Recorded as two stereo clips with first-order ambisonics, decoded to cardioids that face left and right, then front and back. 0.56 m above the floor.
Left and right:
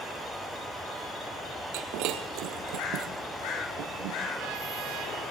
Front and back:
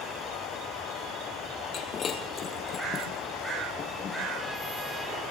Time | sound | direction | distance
1.7 | breaking glass | 60° right | 2.5 m